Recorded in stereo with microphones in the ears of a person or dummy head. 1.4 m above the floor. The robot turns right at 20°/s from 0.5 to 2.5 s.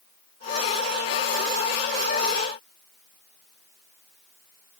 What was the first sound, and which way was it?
Only background noise.